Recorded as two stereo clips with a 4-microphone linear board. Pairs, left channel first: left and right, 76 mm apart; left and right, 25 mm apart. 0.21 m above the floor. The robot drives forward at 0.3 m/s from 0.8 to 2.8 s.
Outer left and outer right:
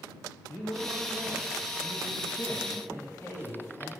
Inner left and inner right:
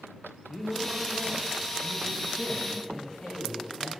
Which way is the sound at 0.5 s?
30° left (ahead or behind).